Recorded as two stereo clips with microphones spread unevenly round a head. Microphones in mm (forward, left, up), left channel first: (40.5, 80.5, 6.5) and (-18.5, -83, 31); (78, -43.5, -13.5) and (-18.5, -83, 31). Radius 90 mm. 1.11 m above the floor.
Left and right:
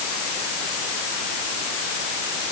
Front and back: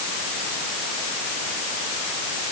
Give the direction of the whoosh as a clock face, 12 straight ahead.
No whoosh in this recording.